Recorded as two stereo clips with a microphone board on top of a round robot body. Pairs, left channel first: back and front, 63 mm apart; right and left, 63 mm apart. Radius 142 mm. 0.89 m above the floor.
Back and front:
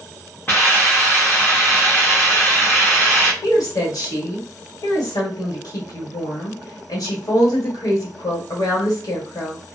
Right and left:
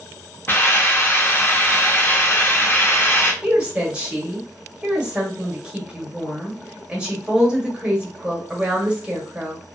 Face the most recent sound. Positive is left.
turn(degrees=165)